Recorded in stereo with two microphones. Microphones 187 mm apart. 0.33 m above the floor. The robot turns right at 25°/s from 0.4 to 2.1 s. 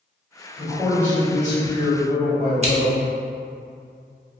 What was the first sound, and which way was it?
A man speaking, 175° right.